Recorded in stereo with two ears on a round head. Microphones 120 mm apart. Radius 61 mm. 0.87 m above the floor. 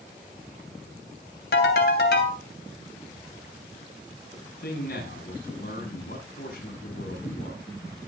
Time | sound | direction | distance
1.5 | a ringtone | 85° left | 3 m
4.3 | a man speaking | 70° left (ahead or behind) | 7 m